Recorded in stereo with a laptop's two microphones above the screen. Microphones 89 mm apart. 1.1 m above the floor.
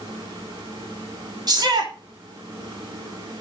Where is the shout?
50° right (ahead or behind), 2 m.